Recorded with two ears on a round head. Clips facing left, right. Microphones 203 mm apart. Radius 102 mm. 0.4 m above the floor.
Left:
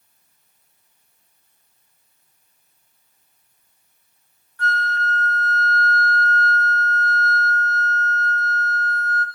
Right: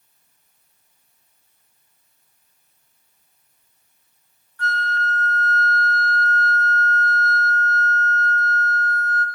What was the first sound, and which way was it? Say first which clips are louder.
A flute: left 1 dB; 35° left (ahead or behind).